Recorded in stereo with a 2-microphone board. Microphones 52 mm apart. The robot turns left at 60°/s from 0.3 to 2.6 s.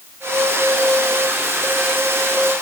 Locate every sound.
Only background noise.